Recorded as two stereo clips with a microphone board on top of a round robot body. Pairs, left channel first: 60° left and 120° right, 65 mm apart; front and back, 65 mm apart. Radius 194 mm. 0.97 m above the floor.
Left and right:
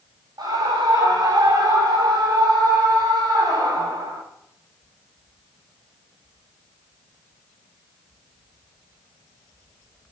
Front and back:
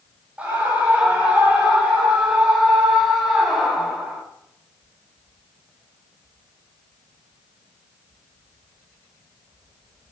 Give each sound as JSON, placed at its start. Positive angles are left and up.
{"t": 0.4, "sound": "a scream", "azimuth_deg": -110, "distance_m": 9.0}